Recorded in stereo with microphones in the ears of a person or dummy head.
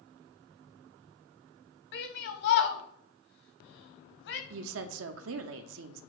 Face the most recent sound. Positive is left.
turn(degrees=-75)  # may be behind; listen again after turning